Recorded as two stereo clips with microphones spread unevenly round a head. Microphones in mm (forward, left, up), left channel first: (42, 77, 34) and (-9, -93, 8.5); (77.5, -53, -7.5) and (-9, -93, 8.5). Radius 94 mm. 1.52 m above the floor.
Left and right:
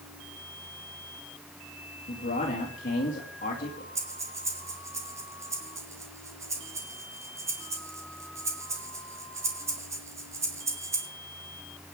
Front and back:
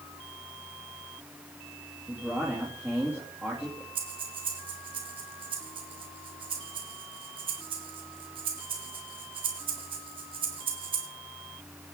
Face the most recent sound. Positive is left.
turn(degrees=175)